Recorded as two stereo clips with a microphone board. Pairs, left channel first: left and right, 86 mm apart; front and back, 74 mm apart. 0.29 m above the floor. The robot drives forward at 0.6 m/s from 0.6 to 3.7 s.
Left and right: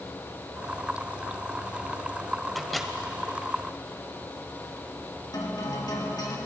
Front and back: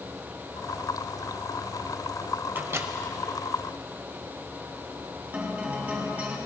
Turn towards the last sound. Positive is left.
turn(degrees=115)